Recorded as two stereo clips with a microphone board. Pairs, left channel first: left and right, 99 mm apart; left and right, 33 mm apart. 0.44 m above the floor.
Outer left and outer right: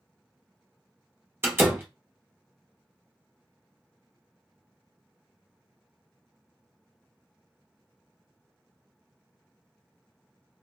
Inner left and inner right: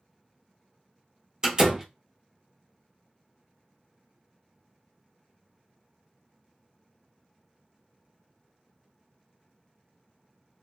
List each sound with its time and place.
1.4 s a door slam: 25° right (ahead or behind), 0.9 m